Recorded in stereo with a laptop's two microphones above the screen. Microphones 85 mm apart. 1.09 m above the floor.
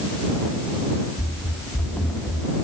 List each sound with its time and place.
1.2 s running footsteps: 20° left (ahead or behind); by 2.5 s 15° left (ahead or behind)